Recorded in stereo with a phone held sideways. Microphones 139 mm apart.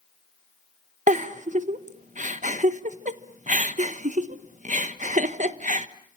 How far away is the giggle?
About 1.2 m.